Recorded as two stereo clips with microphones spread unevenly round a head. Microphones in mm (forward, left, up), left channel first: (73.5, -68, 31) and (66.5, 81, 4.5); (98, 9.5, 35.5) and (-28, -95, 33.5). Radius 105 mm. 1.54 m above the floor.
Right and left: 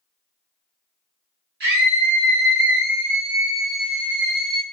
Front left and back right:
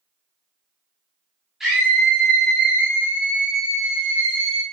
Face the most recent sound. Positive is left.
turn(degrees=160)